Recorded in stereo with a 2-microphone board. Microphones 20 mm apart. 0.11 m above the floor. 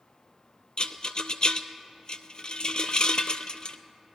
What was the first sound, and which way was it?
A rattle, 50° left (ahead or behind).